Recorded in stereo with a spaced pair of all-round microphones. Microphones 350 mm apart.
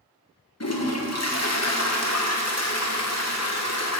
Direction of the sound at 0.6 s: 45° left (ahead or behind).